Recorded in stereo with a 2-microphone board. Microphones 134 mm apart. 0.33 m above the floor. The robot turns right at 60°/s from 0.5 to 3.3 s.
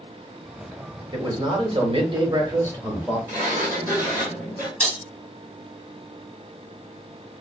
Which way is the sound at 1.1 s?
135° right.